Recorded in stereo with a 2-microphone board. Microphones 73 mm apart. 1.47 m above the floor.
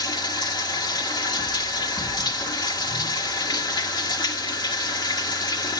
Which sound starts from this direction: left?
Running water, at 0.0 s.